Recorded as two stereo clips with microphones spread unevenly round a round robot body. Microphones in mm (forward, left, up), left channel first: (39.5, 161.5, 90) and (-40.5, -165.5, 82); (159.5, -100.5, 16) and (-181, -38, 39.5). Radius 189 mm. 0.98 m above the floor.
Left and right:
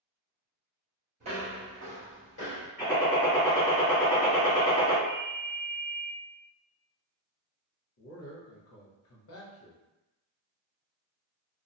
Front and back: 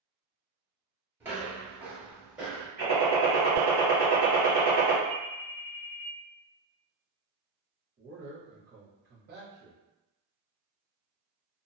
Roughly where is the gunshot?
Behind left.